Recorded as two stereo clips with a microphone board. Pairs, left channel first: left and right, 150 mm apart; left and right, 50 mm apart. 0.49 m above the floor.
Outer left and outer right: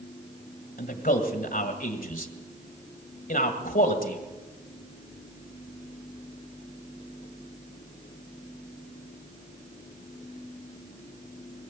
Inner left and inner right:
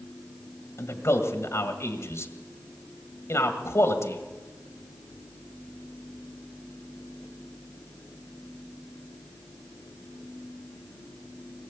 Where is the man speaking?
70° left (ahead or behind), 1.9 m.